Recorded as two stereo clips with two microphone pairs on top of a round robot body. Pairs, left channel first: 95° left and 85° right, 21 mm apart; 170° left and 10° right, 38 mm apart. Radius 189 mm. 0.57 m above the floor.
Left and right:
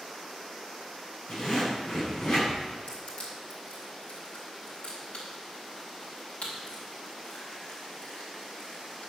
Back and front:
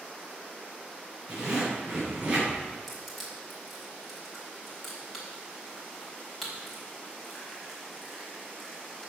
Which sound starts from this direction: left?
Crushing, at 2.9 s.